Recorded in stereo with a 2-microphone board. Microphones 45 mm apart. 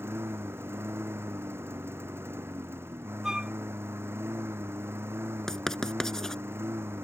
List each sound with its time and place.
0.0 s a lawn mower: 65° right (ahead or behind)
3.2 s a flute: 10° right (ahead or behind)
5.5 s writing: 10° left (ahead or behind)